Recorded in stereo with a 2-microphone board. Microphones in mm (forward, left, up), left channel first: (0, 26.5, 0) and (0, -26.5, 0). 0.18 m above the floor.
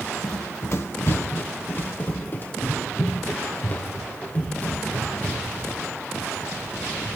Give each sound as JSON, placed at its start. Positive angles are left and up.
{"t": 0.2, "sound": "running footsteps", "side_deg": 60, "distance_m": 1.2}